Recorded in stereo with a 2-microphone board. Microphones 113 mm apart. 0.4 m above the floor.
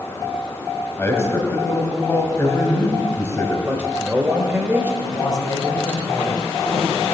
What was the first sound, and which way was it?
A man speaking, 25° left (ahead or behind).